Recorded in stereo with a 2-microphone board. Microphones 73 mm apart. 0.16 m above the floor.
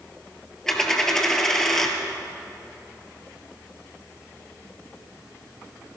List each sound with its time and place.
0.7 s a dropped coin: 5° left (ahead or behind), 1.7 m